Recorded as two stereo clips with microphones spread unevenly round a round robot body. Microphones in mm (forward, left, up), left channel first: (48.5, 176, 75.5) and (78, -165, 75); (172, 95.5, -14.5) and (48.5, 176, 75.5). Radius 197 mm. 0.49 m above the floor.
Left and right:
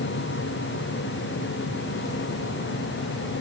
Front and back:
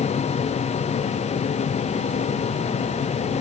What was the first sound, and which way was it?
Only background noise.